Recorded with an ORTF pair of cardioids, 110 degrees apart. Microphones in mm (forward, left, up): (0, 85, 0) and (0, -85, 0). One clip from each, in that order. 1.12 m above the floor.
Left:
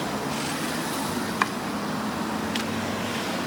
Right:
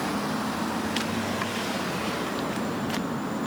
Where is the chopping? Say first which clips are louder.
Left 6 dB; 45° left.